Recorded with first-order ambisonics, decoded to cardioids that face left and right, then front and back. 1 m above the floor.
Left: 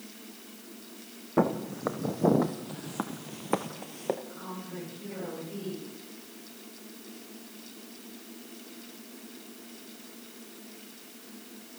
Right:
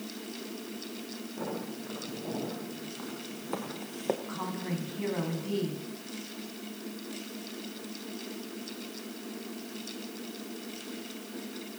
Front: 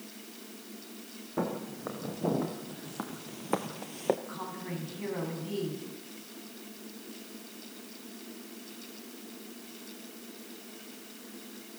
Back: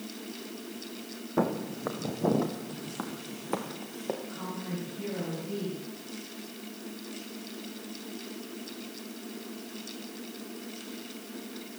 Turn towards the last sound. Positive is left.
turn(degrees=-65)